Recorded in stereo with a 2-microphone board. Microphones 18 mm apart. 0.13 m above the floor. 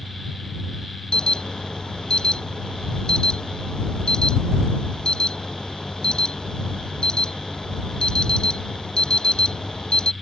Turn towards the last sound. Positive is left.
turn(degrees=55)  # may be behind; listen again after turning